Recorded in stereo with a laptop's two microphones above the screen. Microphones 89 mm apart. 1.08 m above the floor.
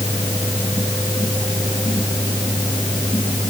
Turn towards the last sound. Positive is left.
turn(degrees=45)  # may be behind; listen again after turning